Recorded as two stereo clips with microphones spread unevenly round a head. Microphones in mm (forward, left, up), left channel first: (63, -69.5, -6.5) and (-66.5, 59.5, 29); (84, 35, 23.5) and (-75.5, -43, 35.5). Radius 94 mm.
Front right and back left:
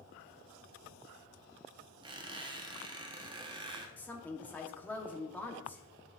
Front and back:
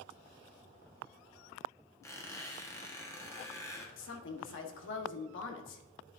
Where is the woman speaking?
35° left, 1.1 m.